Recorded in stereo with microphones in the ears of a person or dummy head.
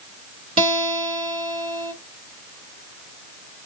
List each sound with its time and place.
0.6 s a guitar: 30° right (ahead or behind), 3 m